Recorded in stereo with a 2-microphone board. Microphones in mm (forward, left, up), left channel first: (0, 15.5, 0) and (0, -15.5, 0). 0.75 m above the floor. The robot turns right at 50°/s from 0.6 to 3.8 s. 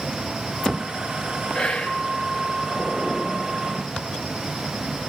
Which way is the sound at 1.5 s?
30° left (ahead or behind).